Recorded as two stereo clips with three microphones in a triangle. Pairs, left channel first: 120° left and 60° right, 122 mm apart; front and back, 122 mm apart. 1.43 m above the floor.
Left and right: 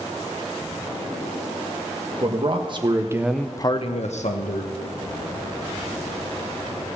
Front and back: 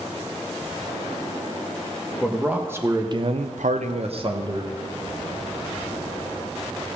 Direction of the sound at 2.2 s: 100° right.